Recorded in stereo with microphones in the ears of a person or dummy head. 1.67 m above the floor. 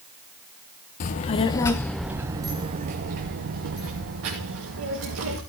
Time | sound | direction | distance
1.0 | a child speaking | 40° left (ahead or behind) | 0.8 m